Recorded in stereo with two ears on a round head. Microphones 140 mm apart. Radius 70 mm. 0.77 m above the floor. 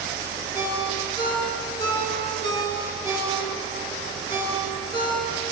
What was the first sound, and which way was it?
A ringtone, 25° left (ahead or behind).